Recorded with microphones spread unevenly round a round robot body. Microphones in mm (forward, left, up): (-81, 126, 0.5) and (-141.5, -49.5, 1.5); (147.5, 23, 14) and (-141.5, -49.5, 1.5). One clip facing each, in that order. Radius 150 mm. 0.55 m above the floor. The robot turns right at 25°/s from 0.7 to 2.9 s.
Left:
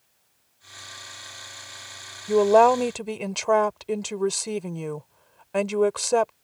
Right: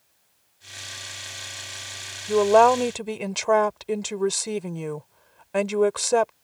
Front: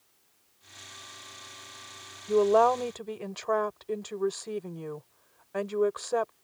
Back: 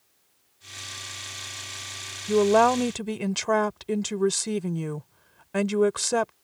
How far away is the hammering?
I don't hear hammering.